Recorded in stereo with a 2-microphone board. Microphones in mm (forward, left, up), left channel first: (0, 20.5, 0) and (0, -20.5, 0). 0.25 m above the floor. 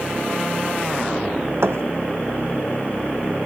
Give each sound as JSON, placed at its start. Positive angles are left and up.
{"t": 1.6, "sound": "a thud", "side_deg": -80, "distance_m": 1.1}